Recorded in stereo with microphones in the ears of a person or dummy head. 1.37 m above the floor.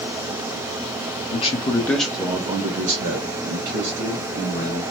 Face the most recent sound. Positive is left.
turn(degrees=-75)  # may be behind; listen again after turning